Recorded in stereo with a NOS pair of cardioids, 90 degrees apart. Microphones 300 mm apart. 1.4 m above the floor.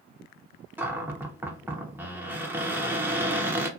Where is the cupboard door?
5° right, 0.7 m.